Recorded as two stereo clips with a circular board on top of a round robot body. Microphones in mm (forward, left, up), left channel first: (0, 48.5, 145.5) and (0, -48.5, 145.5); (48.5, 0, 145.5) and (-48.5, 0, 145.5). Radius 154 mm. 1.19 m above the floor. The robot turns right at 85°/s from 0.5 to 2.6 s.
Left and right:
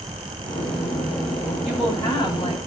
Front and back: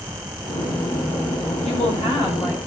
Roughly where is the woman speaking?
Ahead.